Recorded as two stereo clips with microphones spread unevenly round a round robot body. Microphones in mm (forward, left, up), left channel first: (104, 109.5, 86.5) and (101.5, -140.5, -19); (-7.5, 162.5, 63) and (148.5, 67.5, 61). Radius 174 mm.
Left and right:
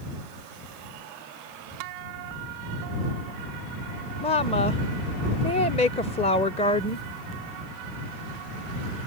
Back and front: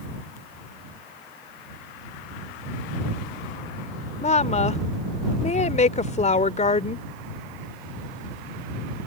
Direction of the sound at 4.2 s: 175° left.